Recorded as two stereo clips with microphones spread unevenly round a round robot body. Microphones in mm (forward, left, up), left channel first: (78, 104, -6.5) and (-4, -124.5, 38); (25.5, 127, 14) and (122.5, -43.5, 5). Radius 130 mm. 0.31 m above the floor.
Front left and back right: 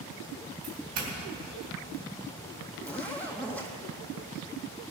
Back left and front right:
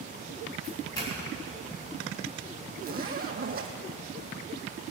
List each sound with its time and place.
0.6 s a doorbell: 170° right, 3.5 m
2.8 s a zipper: 15° right, 2 m